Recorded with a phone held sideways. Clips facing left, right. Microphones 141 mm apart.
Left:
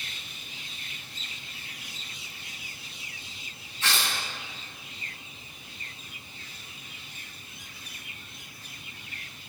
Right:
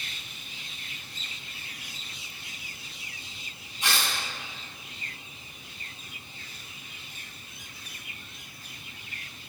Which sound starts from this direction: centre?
Tearing paper, at 3.8 s.